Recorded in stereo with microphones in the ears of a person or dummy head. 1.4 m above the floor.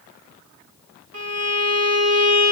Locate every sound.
1.1 s a violin: 75° right (ahead or behind), 1.9 m